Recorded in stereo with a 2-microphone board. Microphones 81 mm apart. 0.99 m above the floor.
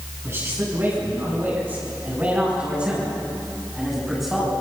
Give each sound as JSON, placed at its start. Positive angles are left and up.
{"t": 0.2, "sound": "a man speaking", "side_deg": -35, "distance_m": 8.0}